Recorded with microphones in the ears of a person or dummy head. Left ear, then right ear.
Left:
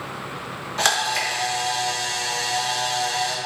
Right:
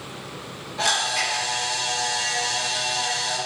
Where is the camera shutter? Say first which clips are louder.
Left 1 dB; 55° left (ahead or behind), 1.4 m.